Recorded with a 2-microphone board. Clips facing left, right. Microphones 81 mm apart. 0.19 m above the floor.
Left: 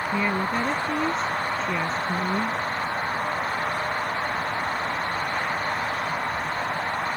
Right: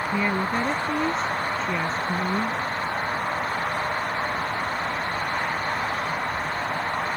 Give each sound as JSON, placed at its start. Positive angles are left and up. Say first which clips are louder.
{"t": 0.1, "sound": "a woman speaking", "louder": "even", "side_deg": -5}